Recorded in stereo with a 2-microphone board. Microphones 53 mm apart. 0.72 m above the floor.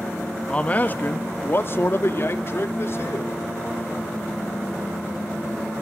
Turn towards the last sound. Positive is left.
turn(degrees=50)  # may be behind; listen again after turning